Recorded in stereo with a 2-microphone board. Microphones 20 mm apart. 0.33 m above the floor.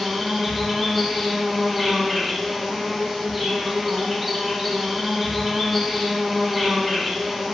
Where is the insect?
5° left (ahead or behind), 0.7 m.